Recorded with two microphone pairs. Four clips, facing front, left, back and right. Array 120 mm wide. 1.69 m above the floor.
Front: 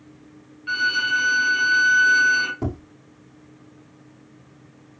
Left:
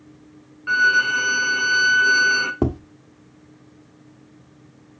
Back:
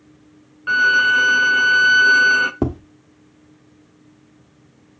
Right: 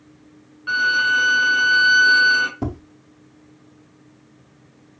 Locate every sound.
0.7 s a violin: 175° right, 0.6 m
2.6 s tapping: 145° left, 0.9 m